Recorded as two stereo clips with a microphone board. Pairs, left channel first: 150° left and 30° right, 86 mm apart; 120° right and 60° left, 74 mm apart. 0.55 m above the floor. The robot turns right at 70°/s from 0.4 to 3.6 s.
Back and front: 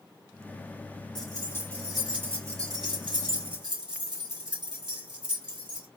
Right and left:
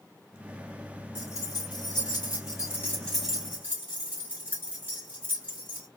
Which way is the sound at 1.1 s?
175° right.